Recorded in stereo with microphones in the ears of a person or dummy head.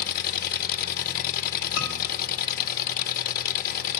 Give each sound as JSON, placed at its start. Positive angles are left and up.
{"t": 0.0, "sound": "an engine running", "side_deg": 45, "distance_m": 0.8}
{"t": 1.8, "sound": "a scream", "side_deg": 65, "distance_m": 3.0}